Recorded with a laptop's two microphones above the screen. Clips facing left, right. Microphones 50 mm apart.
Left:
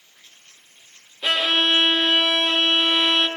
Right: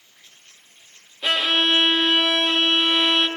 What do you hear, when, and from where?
1.2 s a violin: centre (ahead or behind), 0.9 m